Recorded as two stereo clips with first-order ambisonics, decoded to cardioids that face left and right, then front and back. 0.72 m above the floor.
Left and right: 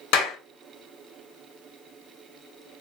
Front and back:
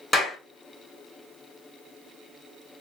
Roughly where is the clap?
Left.